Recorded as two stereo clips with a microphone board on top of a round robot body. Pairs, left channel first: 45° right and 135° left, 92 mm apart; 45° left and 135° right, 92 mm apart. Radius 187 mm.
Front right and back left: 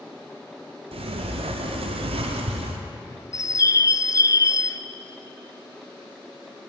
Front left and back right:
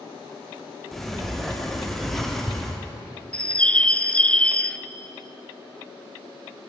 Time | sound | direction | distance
0.9 | a sliding door | 135° left | 0.7 m
3.3 | a bird | 25° right | 0.6 m